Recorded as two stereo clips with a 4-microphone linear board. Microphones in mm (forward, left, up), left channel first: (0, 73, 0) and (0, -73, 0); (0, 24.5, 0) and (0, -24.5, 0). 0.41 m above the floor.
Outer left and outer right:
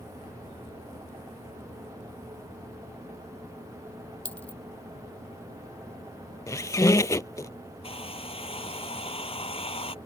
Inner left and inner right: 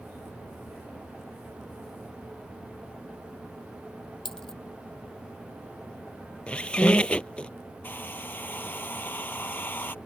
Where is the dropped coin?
10° left (ahead or behind).